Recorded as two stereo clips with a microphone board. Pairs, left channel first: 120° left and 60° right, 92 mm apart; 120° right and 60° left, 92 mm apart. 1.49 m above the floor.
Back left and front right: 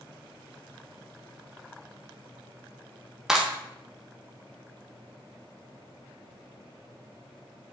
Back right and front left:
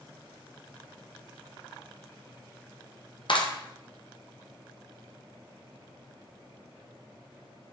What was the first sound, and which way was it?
A clap, 145° right.